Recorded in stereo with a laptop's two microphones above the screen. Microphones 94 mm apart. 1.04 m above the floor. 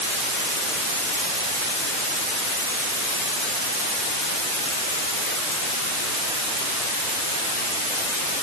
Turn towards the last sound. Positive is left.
No sound to turn to.